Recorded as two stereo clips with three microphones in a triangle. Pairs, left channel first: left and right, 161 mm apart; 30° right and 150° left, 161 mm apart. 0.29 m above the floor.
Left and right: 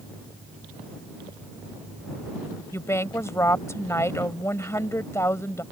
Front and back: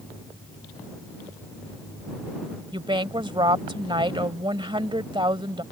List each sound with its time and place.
2.7 s a woman speaking: 145° left